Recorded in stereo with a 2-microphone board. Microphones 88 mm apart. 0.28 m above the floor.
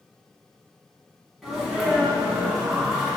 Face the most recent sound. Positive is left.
turn(degrees=-5)  # may be behind; listen again after turning